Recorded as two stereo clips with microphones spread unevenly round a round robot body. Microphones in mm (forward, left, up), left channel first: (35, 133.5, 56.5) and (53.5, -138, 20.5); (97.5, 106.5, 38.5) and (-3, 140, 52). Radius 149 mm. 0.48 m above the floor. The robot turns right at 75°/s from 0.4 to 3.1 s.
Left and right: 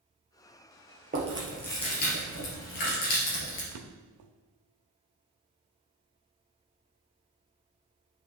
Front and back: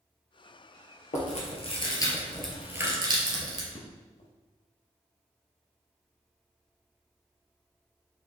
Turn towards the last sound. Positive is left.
turn(degrees=-65)